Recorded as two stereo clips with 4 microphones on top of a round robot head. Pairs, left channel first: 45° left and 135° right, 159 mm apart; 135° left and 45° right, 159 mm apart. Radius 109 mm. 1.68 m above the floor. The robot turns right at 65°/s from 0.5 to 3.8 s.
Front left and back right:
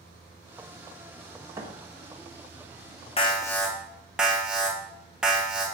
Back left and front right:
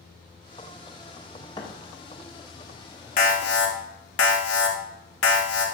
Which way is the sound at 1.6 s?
175° left.